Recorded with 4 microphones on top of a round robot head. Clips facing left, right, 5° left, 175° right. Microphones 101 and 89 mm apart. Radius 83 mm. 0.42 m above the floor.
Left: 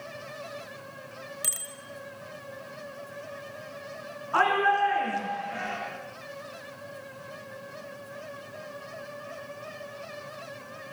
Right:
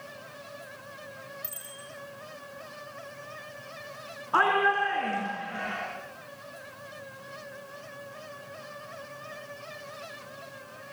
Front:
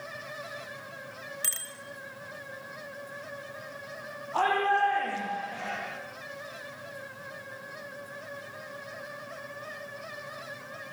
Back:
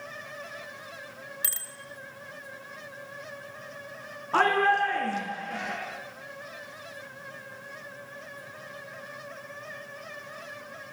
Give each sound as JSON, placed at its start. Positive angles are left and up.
{"t": 1.4, "sound": "a bicycle bell", "azimuth_deg": 105, "distance_m": 5.0}
{"t": 4.3, "sound": "a shout", "azimuth_deg": -165, "distance_m": 6.0}